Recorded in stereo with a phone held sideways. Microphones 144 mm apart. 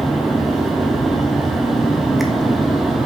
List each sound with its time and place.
0.0 s a fan: centre (ahead or behind), 0.7 m